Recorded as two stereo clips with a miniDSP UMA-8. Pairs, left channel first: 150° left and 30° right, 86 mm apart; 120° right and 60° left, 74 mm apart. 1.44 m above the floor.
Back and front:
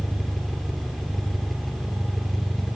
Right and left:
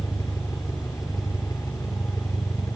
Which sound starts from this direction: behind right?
An engine running, at 0.0 s.